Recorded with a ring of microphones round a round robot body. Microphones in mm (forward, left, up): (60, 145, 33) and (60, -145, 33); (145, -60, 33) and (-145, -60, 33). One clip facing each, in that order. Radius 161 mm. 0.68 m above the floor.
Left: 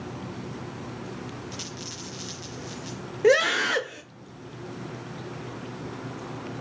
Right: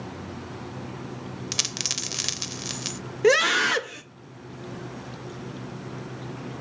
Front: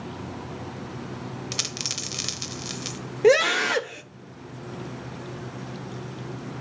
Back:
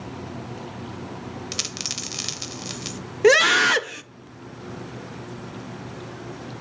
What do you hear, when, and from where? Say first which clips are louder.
1.5 s a dropped coin: right 1 dB, even; 90° right, 0.8 m
3.2 s a scream: even, back 1 dB; 150° right, 0.7 m